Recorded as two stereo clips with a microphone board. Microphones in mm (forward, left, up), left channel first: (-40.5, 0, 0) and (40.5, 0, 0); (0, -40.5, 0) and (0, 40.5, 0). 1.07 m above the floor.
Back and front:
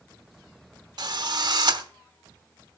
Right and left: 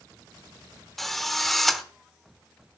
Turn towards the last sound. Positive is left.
turn(degrees=-5)